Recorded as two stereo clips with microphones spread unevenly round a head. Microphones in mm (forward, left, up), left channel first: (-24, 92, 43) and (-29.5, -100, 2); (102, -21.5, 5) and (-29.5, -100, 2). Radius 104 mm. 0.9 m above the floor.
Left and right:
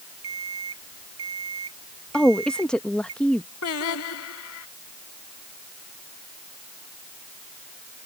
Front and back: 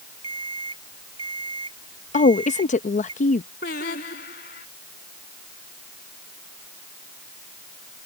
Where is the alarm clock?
95° right.